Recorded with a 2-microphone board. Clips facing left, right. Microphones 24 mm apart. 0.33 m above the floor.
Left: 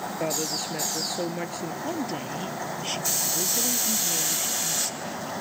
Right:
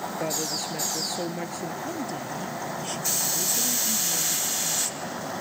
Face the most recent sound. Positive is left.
turn(degrees=25)  # may be behind; listen again after turning